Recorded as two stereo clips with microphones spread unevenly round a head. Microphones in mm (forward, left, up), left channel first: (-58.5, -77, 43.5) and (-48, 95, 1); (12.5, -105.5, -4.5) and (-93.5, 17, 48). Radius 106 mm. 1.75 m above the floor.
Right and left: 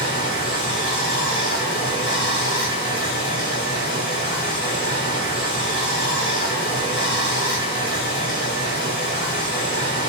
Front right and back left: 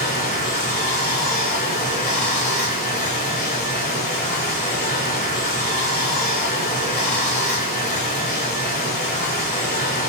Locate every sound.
0.0 s running water: 90° right, 1.7 m